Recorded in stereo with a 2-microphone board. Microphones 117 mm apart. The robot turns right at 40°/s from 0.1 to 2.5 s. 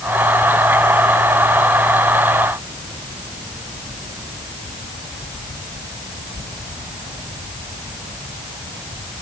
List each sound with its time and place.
Only background noise.